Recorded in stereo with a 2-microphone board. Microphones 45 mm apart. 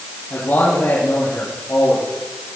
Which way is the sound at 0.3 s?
85° left.